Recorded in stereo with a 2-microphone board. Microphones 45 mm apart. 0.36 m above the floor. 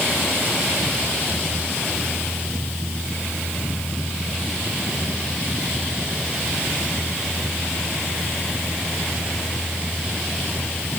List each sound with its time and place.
Only background noise.